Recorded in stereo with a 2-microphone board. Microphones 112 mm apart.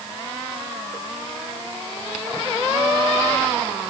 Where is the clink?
I don't hear a clink.